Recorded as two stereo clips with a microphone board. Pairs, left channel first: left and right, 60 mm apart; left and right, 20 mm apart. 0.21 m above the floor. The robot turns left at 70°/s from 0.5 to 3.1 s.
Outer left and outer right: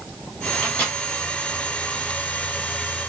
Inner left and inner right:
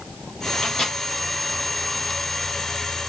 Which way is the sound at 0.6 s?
25° left (ahead or behind).